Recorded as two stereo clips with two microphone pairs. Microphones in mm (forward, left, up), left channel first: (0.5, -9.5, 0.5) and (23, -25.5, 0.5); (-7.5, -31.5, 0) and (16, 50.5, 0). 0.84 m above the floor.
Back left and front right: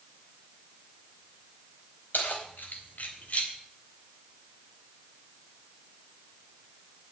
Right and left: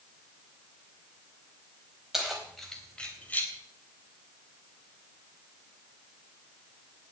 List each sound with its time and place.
2.1 s keys jangling: 160° left, 4 m; by 3.5 s 175° right, 3.5 m